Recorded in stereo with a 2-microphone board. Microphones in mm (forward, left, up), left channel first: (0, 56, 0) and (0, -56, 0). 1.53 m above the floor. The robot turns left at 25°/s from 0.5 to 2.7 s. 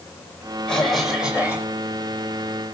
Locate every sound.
0.7 s a cough: 5° left (ahead or behind), 8.5 m; by 1.7 s 20° right (ahead or behind), 8.5 m